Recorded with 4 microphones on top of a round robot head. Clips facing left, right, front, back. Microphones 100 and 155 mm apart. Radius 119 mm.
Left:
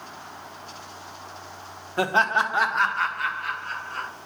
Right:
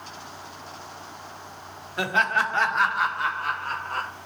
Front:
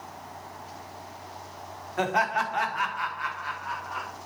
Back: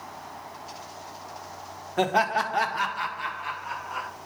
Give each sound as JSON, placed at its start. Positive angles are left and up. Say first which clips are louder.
{"t": 2.0, "sound": "laughter", "louder": "left 2 dB, back 3 dB", "azimuth_deg": 130, "distance_m": 1.8}